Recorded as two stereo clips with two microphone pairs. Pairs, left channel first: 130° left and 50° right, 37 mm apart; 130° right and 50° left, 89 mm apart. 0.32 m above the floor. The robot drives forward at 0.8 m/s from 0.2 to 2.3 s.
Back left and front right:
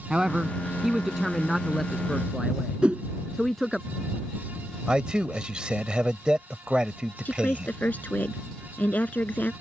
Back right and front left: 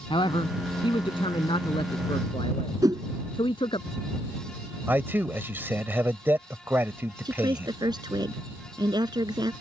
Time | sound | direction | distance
0.1 | a man speaking | 125° right | ?
2.8 | a whoosh | 5° left | ?
4.9 | a man speaking | straight ahead | ?
7.2 | a woman speaking | 85° left | ?